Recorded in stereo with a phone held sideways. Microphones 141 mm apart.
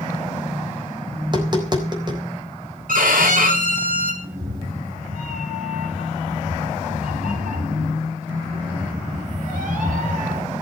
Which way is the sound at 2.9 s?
85° right.